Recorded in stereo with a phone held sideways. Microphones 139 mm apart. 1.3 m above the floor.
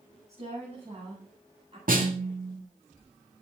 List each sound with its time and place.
0.3 s a woman speaking: 55° right (ahead or behind), 9.5 m; by 1.8 s 45° right (ahead or behind), 10.5 m
1.9 s a snare drum: 85° right, 2.5 m